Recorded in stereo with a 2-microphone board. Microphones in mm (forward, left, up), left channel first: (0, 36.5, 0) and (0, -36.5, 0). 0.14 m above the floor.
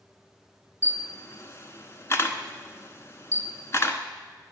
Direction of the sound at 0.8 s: 40° left (ahead or behind).